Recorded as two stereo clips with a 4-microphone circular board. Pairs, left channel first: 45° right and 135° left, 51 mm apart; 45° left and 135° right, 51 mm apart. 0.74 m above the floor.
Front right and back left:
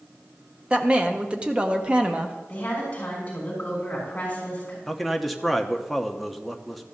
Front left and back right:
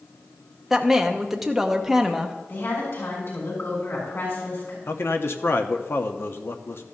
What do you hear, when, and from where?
0.7 s a woman speaking: 150° left, 0.8 m
2.5 s a woman speaking: 15° left, 6 m
4.9 s a man speaking: 45° left, 0.9 m